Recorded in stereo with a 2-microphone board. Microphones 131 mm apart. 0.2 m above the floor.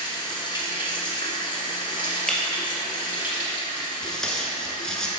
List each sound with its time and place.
0.0 s running water: 40° left (ahead or behind), 1.6 m
2.3 s breaking glass: 5° left (ahead or behind), 1.4 m
4.0 s tape being pulled: 5° left (ahead or behind), 1.0 m